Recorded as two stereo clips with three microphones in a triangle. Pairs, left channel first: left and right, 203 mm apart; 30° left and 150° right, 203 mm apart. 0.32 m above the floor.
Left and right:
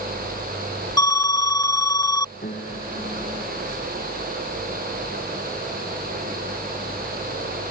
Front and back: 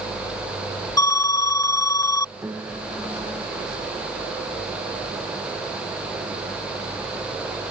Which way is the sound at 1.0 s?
65° left.